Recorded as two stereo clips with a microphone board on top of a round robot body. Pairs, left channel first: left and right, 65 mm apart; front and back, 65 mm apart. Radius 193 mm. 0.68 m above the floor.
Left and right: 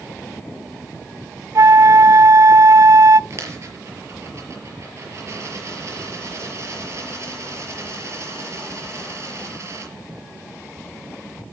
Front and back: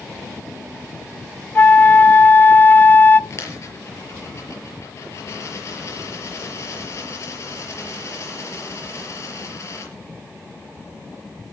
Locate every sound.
1.6 s a flute: 60° right, 0.8 m
3.3 s a dropped coin: 45° right, 5.5 m